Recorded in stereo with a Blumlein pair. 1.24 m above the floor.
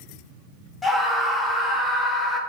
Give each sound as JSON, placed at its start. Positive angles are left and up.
{"t": 0.8, "sound": "a scream", "azimuth_deg": 10, "distance_m": 0.6}